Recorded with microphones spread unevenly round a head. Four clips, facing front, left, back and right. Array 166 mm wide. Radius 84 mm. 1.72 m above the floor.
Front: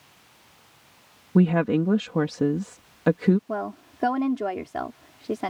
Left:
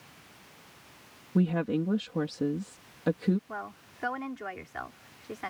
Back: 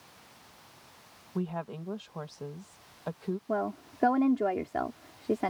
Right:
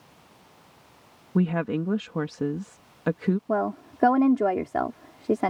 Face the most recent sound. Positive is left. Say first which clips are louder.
# right 14 dB, front 1 dB
turn(degrees=-90)